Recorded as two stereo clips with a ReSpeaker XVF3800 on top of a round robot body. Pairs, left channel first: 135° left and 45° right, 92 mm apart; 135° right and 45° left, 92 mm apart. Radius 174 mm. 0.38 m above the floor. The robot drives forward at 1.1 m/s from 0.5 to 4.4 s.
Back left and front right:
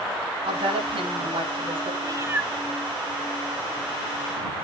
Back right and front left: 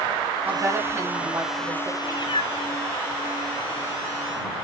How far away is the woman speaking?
About 4.5 m.